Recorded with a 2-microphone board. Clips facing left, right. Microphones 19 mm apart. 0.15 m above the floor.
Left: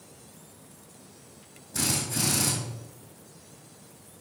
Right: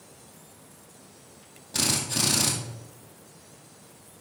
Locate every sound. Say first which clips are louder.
1.7 s a drill: right 3 dB; 55° right (ahead or behind), 2.5 m